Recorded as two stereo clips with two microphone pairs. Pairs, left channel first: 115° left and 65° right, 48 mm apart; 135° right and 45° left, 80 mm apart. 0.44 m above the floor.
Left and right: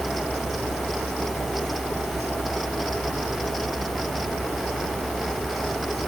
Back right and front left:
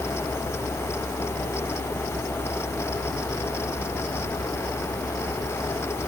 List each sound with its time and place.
Only background noise.